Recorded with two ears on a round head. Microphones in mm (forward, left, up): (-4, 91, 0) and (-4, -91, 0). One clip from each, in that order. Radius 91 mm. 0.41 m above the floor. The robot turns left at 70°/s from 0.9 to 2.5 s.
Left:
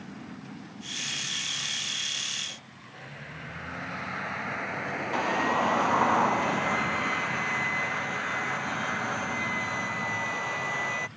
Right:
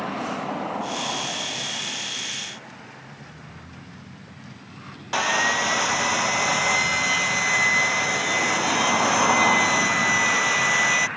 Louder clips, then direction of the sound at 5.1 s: Right 6 dB; 80° right.